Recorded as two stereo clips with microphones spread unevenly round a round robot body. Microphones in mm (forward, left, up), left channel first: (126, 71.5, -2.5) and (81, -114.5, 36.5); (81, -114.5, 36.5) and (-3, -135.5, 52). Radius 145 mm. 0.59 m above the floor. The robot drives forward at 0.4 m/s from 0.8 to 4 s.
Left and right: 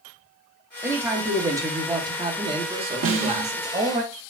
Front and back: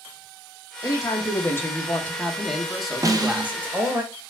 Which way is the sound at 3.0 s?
110° right.